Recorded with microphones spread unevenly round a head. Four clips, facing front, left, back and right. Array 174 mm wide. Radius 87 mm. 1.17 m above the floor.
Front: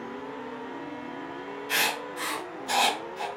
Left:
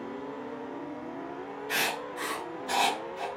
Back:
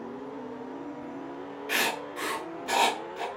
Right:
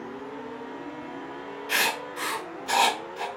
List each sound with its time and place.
1.7 s writing: 155° right, 1.4 m